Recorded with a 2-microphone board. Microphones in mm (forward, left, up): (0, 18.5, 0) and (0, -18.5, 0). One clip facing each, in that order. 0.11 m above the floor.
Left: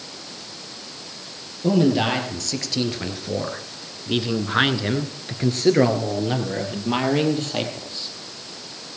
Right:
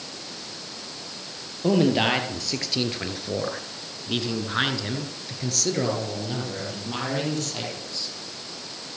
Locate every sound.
1.6 s a man speaking: 15° right (ahead or behind), 3 m; by 8.2 s 30° left (ahead or behind), 4.5 m